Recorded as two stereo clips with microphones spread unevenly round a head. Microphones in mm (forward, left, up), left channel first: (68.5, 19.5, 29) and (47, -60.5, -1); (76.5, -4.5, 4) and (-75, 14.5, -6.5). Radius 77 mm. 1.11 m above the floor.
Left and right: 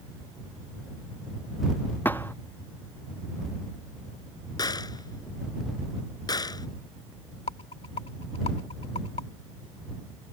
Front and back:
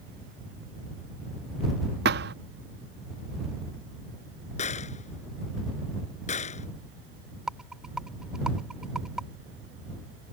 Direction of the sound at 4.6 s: 40° left.